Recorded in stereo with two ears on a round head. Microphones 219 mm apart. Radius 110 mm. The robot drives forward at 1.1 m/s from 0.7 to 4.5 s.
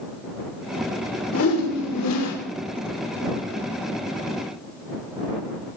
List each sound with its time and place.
1.3 s a whoosh: 60° left (ahead or behind), 1.4 m; by 2.4 s 65° left (ahead or behind), 1.4 m